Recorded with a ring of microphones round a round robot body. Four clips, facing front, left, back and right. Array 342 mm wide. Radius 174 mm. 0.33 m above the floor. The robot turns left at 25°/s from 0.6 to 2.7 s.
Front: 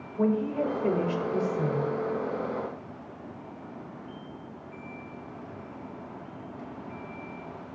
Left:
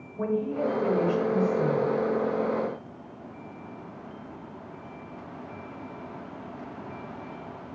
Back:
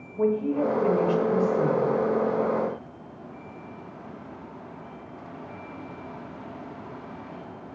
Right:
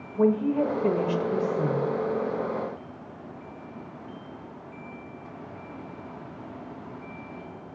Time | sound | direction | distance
0.1 | a woman speaking | 80° right | 1.2 m